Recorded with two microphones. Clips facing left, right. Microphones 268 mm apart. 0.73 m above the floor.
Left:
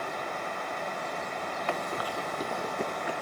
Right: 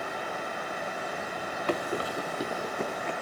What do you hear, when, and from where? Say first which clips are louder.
1.7 s running footsteps: right 5 dB; 40° right (ahead or behind), 0.9 m; by 3.1 s 5° left (ahead or behind), 1.9 m